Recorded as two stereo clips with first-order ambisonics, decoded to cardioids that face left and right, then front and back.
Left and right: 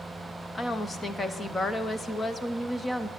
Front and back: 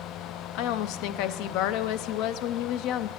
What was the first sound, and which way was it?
A woman speaking, 15° left.